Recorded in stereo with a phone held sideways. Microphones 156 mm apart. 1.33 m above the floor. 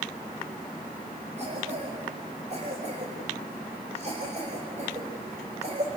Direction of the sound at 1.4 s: 45° right (ahead or behind).